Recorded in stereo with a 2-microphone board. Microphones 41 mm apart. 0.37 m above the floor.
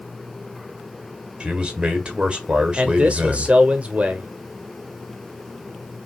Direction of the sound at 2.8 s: 35° right (ahead or behind).